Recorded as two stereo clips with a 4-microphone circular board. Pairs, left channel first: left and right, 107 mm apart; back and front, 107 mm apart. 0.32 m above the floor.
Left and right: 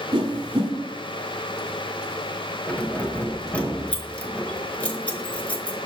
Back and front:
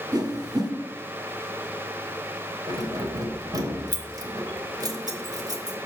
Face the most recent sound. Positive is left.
turn(degrees=20)